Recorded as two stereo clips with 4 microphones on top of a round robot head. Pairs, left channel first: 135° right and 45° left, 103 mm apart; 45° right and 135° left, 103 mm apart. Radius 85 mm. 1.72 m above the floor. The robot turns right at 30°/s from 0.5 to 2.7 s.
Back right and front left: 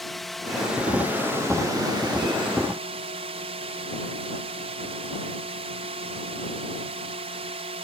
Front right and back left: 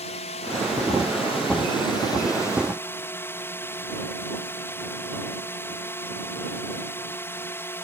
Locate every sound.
0.0 s a drone: 45° right; by 7.8 s 20° left